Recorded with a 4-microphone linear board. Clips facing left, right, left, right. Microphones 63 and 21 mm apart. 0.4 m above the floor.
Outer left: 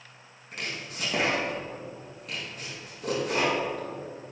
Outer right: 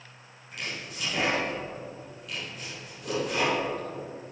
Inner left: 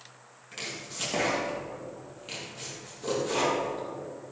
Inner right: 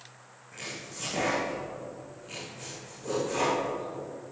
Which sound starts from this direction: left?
Chopping, at 0.5 s.